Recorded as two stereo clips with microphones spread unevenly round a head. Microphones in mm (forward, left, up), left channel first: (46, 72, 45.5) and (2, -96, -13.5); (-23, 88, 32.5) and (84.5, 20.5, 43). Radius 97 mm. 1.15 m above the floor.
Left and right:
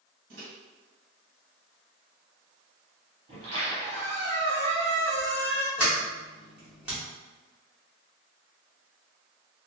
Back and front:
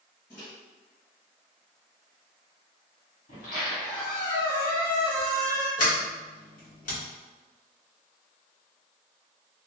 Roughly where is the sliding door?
Behind.